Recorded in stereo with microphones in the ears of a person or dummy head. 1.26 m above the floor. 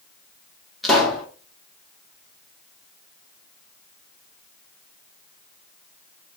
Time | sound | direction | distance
0.8 | a pop | centre (ahead or behind) | 1.0 m